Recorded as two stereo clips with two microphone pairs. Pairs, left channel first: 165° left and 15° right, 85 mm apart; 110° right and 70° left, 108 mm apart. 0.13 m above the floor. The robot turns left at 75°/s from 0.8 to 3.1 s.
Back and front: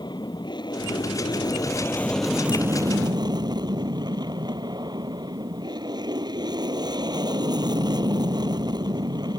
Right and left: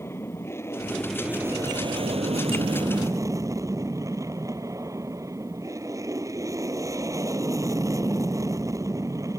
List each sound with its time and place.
0.0 s an aircraft: 175° right; by 9.4 s 10° left